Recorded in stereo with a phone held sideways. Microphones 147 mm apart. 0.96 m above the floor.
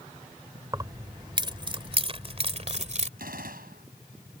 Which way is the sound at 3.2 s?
80° right.